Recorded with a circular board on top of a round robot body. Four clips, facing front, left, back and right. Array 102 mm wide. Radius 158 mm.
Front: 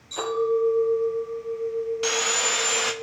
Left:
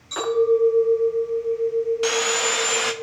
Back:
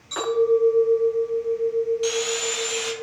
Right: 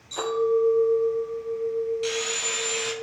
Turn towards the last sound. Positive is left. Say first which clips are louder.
# left 7 dB, back 2 dB
turn(degrees=60)